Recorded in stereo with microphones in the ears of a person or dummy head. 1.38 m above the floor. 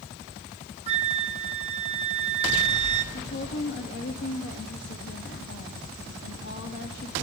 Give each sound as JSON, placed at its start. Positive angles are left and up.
{"t": 0.9, "sound": "a flute", "side_deg": -40, "distance_m": 1.3}
{"t": 3.1, "sound": "a woman speaking", "side_deg": 55, "distance_m": 3.0}